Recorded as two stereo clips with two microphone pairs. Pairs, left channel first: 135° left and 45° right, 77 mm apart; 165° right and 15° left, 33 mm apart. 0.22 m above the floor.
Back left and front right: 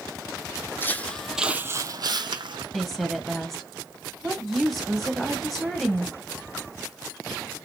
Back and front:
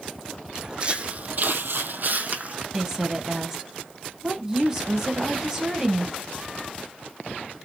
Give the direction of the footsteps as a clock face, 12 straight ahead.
9 o'clock.